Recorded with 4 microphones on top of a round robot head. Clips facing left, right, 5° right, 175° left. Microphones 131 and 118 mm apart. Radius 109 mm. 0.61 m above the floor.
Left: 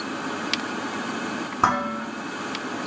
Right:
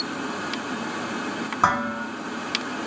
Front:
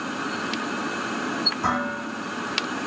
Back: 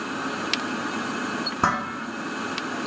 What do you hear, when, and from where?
1.6 s dishes clattering: 175° left, 1.2 m